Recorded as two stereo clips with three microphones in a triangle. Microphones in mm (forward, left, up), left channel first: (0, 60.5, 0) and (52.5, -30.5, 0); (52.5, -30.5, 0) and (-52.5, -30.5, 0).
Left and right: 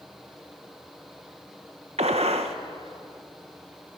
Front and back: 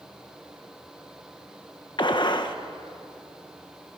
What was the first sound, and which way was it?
A gunshot, 45° right.